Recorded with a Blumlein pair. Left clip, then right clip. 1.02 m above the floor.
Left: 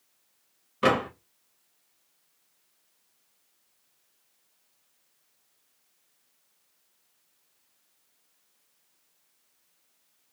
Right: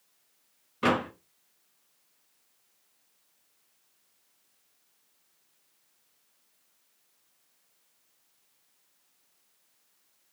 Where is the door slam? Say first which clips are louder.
Left 3 dB; 10° left, 1.0 m.